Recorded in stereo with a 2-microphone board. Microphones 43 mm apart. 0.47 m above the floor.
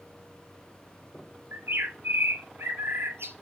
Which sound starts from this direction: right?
A bird, at 1.5 s.